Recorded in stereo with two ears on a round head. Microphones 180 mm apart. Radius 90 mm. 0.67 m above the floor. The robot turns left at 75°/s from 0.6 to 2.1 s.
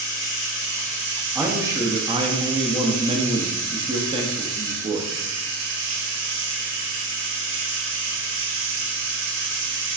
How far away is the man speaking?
About 0.5 m.